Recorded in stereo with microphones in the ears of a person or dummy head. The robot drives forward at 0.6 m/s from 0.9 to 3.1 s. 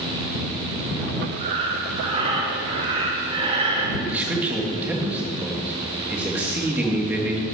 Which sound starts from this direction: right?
Breathing, at 1.4 s.